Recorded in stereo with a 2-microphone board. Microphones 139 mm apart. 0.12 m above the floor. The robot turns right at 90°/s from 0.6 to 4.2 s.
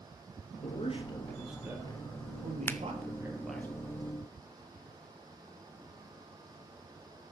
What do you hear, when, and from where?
0.6 s a man speaking: 105° left, 3 m; by 3.7 s 20° left, 3 m
2.7 s a finger snap: 15° left (ahead or behind), 1.0 m; by 2.8 s 20° left (ahead or behind), 1.0 m